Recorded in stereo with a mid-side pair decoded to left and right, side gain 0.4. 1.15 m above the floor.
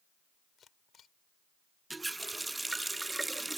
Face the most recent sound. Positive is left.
turn(degrees=-20)